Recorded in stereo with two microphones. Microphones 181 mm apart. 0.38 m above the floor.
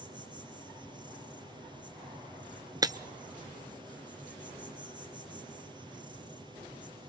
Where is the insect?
25° right (ahead or behind), 3.5 m.